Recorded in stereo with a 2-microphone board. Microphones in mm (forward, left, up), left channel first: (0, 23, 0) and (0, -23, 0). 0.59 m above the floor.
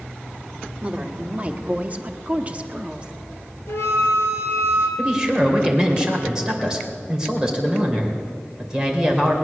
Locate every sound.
0.8 s a woman speaking: 30° right (ahead or behind), 1.4 m; by 3.1 s 25° right (ahead or behind), 0.9 m
3.7 s a flute: 60° left (ahead or behind), 2.5 m
5.0 s a man speaking: 15° right (ahead or behind), 2.5 m